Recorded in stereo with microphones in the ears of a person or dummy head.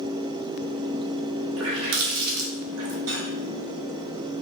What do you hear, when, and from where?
1.6 s a running tap: 75° right (ahead or behind), 2.5 m
3.1 s cutlery clinking: 70° right (ahead or behind), 4 m